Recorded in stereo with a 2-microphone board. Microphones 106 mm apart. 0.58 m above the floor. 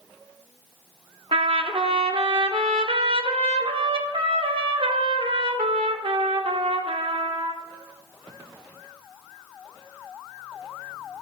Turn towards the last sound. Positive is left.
turn(degrees=-60)  # may be behind; listen again after turning